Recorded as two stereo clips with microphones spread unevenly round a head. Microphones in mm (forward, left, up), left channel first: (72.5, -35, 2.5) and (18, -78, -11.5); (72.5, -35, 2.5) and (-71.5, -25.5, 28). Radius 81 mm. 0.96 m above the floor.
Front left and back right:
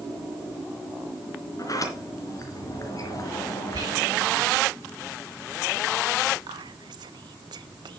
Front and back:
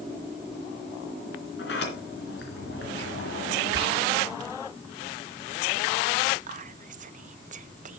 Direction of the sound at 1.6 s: 10° left.